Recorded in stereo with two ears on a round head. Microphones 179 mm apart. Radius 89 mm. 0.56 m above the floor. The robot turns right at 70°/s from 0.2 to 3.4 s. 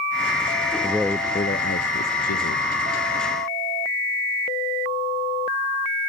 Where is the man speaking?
15° right; by 2.7 s 120° left.